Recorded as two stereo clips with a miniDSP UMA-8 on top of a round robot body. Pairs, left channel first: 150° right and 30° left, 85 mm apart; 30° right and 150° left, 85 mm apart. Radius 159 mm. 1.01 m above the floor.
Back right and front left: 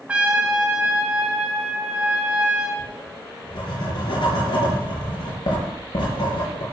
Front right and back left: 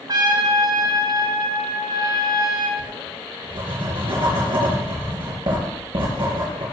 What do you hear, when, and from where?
0.1 s a trumpet: 105° left, 1.0 m
2.8 s writing: 175° left, 5 m